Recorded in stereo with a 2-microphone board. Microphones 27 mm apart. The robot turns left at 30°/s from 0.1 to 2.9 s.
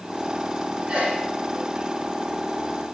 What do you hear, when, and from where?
0.9 s a sneeze: 25° right (ahead or behind), 4.5 m; by 1.2 s 35° right (ahead or behind), 4.5 m